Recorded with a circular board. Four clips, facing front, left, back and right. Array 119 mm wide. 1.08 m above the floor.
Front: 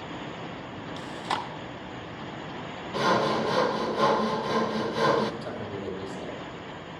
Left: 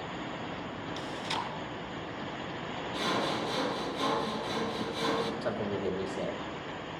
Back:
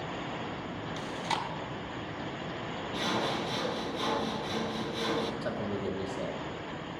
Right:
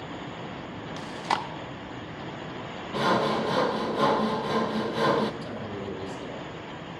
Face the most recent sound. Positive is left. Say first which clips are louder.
# left 3 dB, back 1 dB
turn(degrees=120)